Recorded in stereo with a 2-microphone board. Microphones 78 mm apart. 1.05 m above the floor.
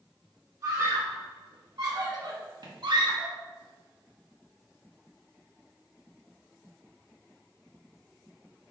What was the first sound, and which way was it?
A scream, 45° right (ahead or behind).